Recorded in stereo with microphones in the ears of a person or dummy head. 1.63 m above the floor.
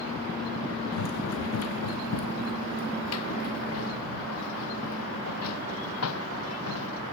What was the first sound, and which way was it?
Running footsteps, 80° left.